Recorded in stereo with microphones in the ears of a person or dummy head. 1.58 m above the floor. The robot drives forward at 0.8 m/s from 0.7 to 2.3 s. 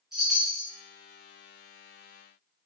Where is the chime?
Centre (ahead or behind), 1.1 m.